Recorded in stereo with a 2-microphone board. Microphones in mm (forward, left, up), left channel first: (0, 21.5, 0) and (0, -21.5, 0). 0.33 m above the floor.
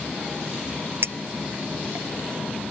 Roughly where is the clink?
Right.